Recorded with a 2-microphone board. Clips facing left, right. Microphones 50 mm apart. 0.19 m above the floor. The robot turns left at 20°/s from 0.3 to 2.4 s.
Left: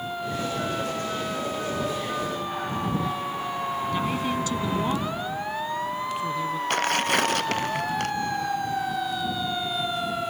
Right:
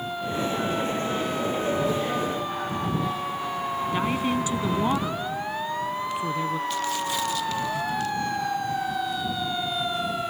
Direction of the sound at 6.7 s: 60° left (ahead or behind).